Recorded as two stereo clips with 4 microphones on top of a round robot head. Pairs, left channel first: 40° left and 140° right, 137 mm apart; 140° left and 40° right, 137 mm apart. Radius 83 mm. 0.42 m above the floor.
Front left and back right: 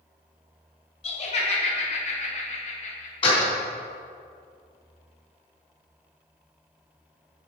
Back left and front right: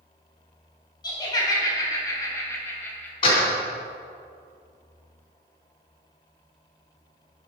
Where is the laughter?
80° left, 3.5 m; by 3.1 s 65° left, 3 m.